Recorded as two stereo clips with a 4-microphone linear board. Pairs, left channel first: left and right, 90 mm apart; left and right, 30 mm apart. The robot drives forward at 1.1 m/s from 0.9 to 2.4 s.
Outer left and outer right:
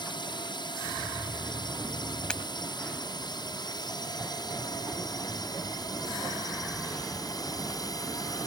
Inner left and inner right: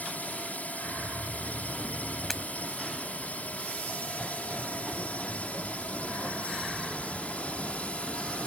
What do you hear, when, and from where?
0.0 s a drone: 55° left (ahead or behind); by 8.5 s 45° left (ahead or behind)
2.3 s breaking glass: 10° left (ahead or behind)